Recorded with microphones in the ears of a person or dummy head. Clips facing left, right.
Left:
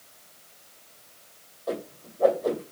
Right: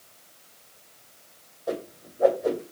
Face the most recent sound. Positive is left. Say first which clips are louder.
# right 1 dB
turn(degrees=-10)  # may be behind; listen again after turning